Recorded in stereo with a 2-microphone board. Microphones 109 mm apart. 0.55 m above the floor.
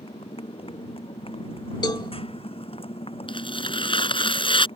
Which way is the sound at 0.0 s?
60° left (ahead or behind).